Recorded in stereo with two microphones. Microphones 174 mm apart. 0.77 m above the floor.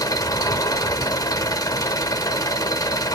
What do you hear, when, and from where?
0.0 s an engine running: 20° left (ahead or behind), 0.8 m